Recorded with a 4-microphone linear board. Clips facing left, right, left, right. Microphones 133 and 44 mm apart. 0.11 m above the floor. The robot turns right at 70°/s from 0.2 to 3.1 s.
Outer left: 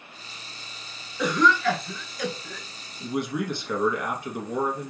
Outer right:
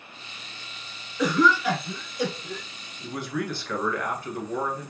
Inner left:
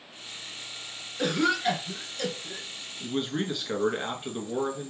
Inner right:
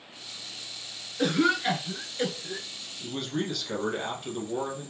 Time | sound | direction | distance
1.2 | a cough | centre (ahead or behind) | 1.4 m
3.0 | a man speaking | 20° left (ahead or behind) | 1.4 m